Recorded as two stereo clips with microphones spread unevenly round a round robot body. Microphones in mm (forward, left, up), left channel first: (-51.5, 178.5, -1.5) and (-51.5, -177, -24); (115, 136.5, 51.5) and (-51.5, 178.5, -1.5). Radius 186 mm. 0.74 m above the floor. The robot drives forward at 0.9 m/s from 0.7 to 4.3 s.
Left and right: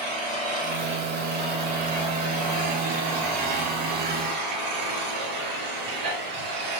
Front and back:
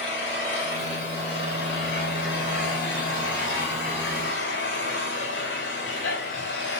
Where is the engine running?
40° right, 7 m; by 6.8 s 60° right, 5 m.